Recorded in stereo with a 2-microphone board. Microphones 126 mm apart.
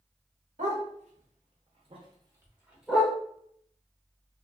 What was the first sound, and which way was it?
A dog barking, 75° right (ahead or behind).